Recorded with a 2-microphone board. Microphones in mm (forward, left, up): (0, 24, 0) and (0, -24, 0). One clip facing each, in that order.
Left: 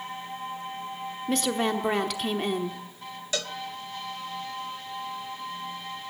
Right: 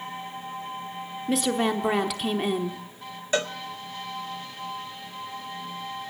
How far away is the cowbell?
About 0.6 m.